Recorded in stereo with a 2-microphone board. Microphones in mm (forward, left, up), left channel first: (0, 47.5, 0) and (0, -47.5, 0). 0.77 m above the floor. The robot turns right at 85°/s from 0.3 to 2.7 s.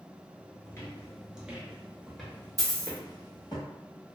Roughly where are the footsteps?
Left.